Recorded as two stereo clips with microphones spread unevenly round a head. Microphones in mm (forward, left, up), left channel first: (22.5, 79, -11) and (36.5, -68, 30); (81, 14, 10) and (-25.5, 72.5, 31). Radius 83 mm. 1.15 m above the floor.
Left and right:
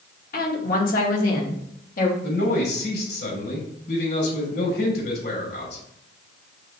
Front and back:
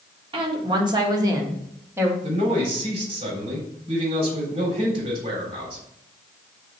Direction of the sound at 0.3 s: 105° left.